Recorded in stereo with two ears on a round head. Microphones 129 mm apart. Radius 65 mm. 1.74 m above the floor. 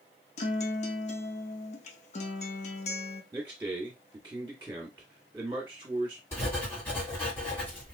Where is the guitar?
45° left (ahead or behind), 0.6 m.